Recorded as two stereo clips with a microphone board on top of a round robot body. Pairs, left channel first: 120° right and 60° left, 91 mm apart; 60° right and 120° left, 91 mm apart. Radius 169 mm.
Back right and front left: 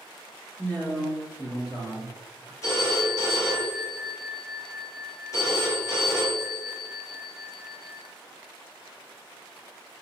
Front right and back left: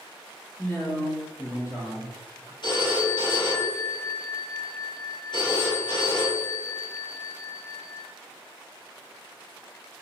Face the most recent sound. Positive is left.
turn(degrees=-70)